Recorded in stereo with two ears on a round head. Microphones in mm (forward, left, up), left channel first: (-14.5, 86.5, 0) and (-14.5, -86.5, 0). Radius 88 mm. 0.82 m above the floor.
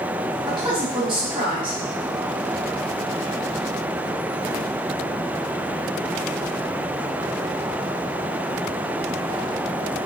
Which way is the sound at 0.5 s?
25° right (ahead or behind).